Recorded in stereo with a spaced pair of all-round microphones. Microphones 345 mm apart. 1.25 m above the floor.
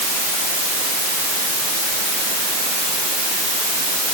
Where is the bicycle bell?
I don't hear a bicycle bell.